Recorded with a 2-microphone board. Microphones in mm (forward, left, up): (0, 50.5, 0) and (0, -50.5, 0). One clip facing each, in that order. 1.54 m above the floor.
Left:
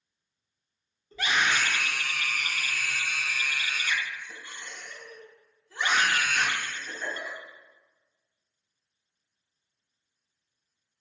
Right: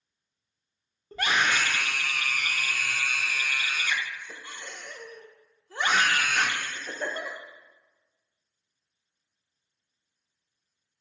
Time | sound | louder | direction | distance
1.1 | a scream | right 1 dB | 50° right (ahead or behind) | 1.1 m